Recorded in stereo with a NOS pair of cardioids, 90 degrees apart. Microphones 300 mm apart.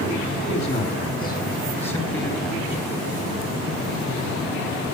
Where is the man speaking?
35° left, 3 m; by 2.8 s 5° right, 1.5 m.